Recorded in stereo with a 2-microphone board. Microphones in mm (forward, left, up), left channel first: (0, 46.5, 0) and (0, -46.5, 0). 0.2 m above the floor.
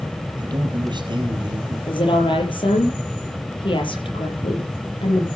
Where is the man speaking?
55° right (ahead or behind), 4.5 m.